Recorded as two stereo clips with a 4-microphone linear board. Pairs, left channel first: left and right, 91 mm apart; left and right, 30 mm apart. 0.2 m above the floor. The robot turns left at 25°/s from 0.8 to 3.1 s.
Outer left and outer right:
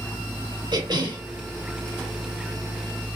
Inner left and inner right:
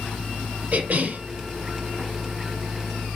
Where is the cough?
55° right (ahead or behind), 4 m; by 1.2 s 65° right (ahead or behind), 4 m.